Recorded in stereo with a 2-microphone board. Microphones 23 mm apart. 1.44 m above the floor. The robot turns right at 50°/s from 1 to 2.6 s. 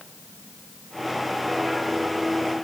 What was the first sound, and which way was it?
Only background noise.